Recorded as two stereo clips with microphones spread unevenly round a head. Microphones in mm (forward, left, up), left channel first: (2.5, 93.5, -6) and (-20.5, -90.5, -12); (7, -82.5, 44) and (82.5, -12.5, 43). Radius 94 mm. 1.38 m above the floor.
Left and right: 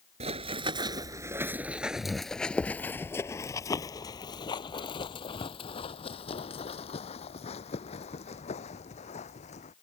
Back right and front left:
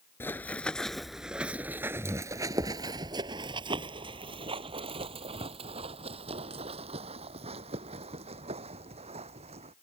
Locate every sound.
0.2 s running footsteps: 90° right; by 9.7 s 30° left